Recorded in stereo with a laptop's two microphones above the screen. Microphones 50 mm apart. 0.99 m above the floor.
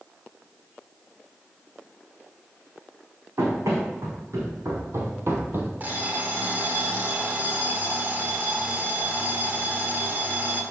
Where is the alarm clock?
35° right (ahead or behind), 2.0 m.